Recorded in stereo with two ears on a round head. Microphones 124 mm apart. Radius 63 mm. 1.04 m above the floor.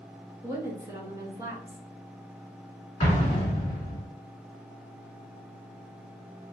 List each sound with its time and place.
0.4 s a woman speaking: 20° right (ahead or behind), 1.5 m
3.0 s an explosion: 40° left (ahead or behind), 2 m